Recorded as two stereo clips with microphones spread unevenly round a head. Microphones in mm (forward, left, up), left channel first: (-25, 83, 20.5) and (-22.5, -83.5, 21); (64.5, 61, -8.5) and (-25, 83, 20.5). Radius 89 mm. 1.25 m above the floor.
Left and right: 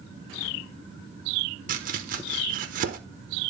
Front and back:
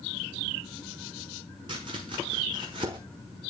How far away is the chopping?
About 1.2 m.